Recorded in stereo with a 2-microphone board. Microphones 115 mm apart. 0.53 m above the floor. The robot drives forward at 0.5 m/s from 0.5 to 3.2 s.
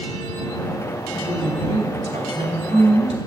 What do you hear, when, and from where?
1.1 s a woman speaking: 70° right (ahead or behind), 4.5 m; by 3.2 s 75° right (ahead or behind), 4 m